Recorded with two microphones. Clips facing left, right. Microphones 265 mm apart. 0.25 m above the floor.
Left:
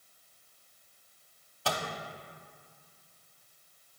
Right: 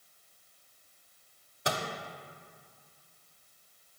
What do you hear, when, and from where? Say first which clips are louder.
1.6 s a microwave: even; 20° right (ahead or behind), 0.8 m